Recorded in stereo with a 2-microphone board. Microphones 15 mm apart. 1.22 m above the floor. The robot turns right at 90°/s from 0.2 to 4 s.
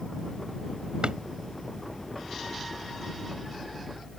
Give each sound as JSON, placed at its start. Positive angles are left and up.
{"t": 1.0, "sound": "a drawer", "side_deg": -75}